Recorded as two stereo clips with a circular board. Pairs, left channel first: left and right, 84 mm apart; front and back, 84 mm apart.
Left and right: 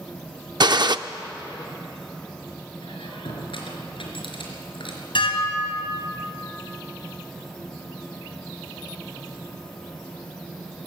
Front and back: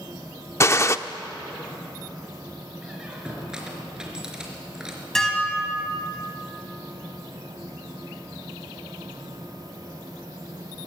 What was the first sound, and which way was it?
A gunshot, 55° right.